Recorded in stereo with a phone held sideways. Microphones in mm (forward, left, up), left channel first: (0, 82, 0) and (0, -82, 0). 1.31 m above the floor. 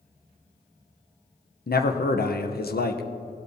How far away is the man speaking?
About 0.9 m.